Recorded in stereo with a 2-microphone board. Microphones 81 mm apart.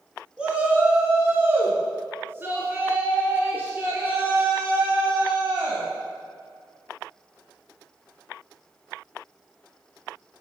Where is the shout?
10° right (ahead or behind), 1.6 m; by 5.9 s 20° right (ahead or behind), 4 m.